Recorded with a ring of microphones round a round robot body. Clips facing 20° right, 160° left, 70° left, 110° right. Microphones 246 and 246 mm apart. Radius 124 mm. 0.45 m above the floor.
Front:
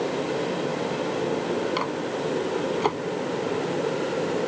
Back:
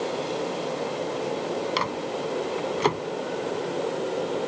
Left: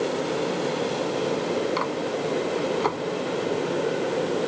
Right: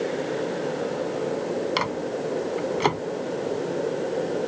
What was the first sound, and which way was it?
A microwave, 145° right.